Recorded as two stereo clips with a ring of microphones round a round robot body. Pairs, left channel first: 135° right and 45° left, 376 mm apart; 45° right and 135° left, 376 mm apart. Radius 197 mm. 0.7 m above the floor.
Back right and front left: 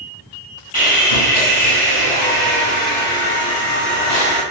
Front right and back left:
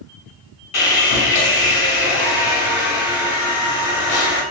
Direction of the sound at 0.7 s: 65° right.